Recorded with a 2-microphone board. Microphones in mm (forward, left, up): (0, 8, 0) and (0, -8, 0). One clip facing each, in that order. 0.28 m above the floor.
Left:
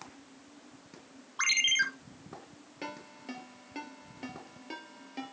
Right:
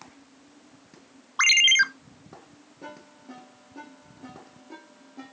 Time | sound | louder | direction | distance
1.4 | a ringtone | right 9 dB | 30° right (ahead or behind) | 0.5 m
2.8 | a ringtone | left 2 dB | 55° left (ahead or behind) | 3.5 m